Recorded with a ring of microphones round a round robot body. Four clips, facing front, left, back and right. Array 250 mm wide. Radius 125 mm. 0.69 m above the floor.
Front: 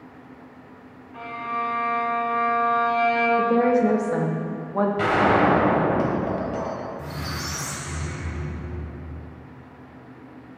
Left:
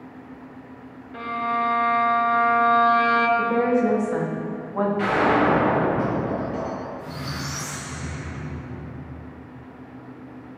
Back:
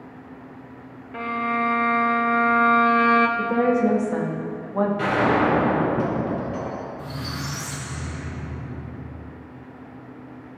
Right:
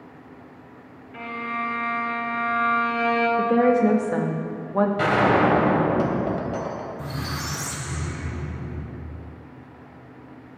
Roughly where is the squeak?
Right.